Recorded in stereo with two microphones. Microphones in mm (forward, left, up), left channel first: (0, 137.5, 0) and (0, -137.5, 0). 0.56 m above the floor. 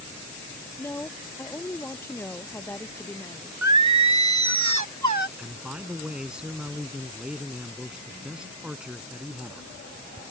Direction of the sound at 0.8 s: 10° left (ahead or behind).